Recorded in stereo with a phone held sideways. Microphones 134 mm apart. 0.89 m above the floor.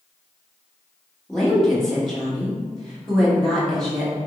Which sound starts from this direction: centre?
A woman speaking, at 1.3 s.